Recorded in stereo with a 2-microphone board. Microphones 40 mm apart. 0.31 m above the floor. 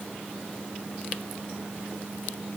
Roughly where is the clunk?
I don't hear a clunk.